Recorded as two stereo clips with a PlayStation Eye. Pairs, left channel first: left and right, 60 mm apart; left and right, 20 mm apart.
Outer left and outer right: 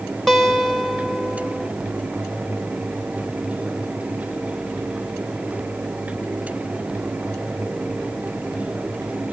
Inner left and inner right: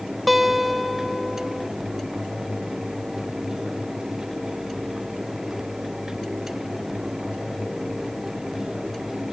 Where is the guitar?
5° left (ahead or behind), 1.3 m.